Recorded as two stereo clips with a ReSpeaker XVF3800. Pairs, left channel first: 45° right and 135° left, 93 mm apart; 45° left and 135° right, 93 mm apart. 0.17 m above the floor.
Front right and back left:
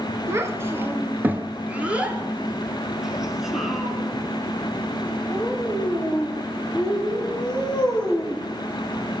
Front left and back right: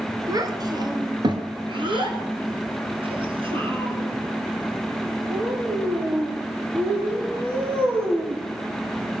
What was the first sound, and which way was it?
A child speaking, 175° right.